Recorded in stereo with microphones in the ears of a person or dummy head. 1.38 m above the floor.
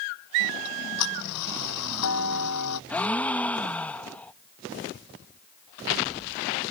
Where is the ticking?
85° left.